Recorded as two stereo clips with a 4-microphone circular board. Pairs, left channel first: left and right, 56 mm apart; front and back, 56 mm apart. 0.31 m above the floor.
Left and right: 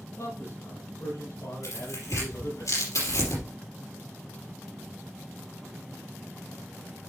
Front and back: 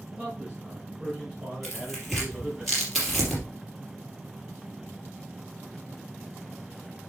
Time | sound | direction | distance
0.1 | a man speaking | 100° left | 5 m
1.6 | tearing paper | 90° left | 4.5 m